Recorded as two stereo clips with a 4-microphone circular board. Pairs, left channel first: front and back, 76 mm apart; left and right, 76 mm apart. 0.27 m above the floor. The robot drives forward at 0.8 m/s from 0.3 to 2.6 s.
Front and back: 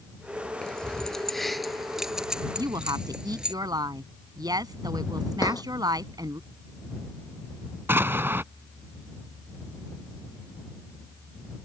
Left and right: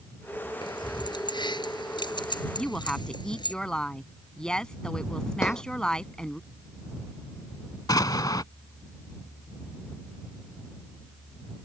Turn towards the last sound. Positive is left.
turn(degrees=120)